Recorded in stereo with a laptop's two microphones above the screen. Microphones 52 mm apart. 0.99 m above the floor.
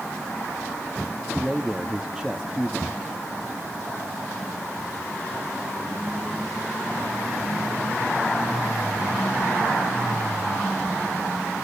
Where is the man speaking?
10° right (ahead or behind), 1.6 m.